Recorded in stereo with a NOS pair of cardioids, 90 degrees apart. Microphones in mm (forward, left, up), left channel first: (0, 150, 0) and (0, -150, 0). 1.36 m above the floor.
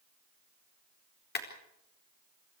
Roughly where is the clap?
Ahead left.